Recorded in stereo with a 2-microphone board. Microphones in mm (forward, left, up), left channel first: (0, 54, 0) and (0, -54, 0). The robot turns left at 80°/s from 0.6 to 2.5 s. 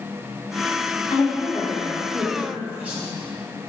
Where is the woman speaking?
85° left, 0.9 m; by 3.1 s 25° right, 0.9 m.